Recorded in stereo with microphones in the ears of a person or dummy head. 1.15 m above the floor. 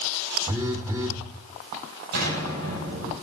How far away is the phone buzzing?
About 1.6 m.